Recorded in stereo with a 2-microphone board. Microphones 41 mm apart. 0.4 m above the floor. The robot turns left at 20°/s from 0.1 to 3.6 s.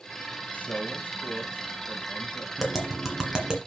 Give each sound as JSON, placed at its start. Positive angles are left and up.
{"t": 0.5, "sound": "a man speaking", "azimuth_deg": 130, "distance_m": 1.9}
{"t": 2.6, "sound": "tapping", "side_deg": 0, "distance_m": 2.0}